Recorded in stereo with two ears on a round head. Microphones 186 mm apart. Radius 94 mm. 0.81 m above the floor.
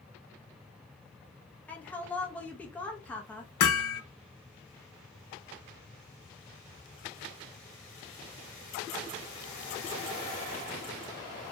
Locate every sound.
1.7 s a woman speaking: 5° left (ahead or behind), 0.6 m
3.6 s hammering: 85° left, 0.6 m